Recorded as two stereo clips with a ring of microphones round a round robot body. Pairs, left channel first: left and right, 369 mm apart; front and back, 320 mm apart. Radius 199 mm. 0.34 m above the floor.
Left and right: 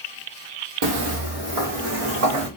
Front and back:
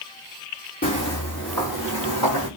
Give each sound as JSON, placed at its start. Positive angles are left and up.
{"t": 0.8, "sound": "footsteps", "azimuth_deg": -65, "distance_m": 0.7}